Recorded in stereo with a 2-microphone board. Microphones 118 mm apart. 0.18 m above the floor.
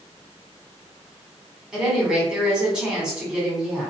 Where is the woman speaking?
5° right (ahead or behind), 1.1 m.